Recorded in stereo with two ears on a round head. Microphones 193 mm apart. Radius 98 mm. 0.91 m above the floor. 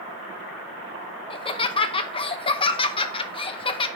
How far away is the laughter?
About 0.8 m.